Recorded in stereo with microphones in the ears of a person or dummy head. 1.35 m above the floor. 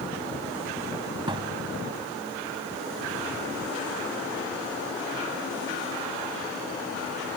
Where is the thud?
30° right (ahead or behind).